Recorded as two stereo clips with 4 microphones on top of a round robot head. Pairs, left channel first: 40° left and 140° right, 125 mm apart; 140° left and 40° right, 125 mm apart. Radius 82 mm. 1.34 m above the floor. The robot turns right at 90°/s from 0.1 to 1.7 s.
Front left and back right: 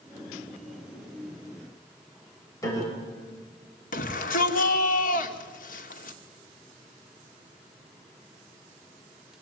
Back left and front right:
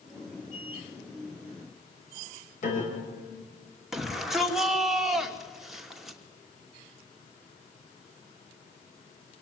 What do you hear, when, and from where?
2.6 s a piano: 105° left, 6.5 m
3.9 s a shout: 45° left, 2.5 m